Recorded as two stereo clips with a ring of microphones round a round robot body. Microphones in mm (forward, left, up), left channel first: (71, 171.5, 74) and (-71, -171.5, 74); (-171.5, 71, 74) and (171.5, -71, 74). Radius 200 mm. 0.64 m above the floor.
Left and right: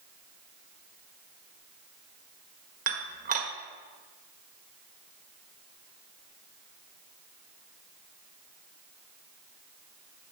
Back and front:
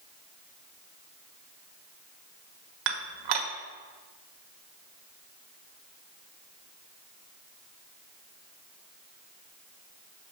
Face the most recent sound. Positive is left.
turn(degrees=-45)